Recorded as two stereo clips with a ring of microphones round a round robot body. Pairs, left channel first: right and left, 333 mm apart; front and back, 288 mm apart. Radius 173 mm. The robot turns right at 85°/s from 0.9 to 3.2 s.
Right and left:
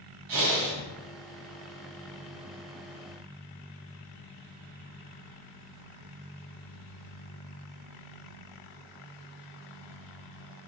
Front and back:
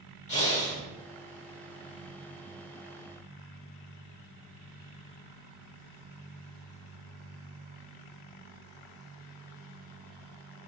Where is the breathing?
65° left, 3 m.